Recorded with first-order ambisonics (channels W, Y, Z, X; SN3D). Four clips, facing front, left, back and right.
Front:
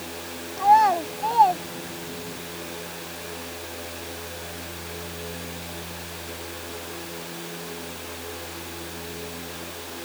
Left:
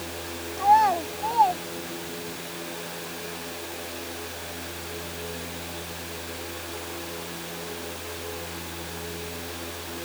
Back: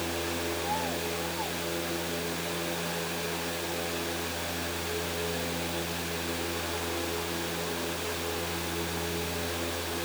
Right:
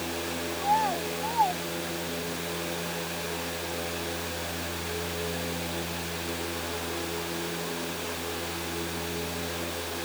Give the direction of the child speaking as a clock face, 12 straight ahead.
11 o'clock.